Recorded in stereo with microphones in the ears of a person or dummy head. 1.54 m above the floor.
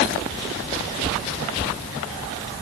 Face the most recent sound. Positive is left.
No sound to turn to.